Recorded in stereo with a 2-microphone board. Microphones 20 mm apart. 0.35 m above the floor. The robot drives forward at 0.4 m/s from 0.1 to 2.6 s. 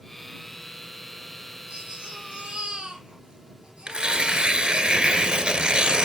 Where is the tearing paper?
45° right (ahead or behind), 0.8 m.